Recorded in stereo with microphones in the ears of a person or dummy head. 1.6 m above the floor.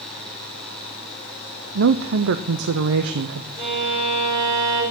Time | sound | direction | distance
1.8 | a woman speaking | 65° right (ahead or behind) | 0.6 m
3.6 | a violin | 30° right (ahead or behind) | 5.5 m